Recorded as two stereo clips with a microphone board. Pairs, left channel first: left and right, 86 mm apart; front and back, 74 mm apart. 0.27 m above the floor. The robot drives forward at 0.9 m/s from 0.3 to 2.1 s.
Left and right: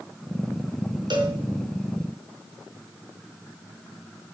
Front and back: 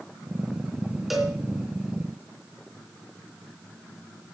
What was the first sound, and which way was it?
A cowbell, 95° right.